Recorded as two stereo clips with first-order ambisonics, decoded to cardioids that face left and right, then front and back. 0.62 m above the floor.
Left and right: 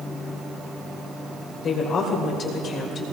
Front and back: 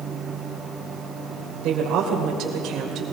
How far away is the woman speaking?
About 2.5 m.